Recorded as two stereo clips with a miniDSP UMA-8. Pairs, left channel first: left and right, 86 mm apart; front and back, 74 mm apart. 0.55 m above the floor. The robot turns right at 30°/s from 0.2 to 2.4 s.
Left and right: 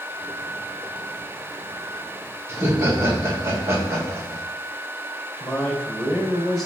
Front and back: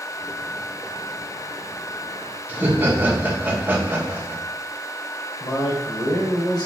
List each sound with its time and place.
2.5 s laughter: 130° right, 1.7 m
5.4 s a man speaking: 10° left, 3 m